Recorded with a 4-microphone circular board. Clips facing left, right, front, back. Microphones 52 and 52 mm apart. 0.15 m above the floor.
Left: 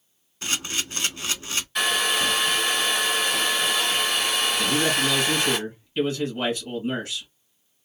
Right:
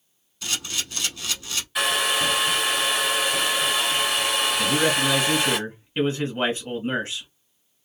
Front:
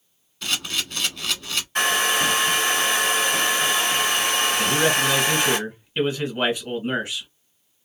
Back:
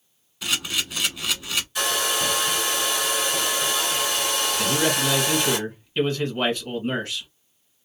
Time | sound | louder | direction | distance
0.4 | a camera shutter | left 2 dB, even | 105° left | 0.7 m
1.8 | a hair dryer | right 1 dB, front 5 dB | 10° right | 0.8 m
4.6 | a man speaking | right 2 dB, front 1 dB | 65° right | 1.4 m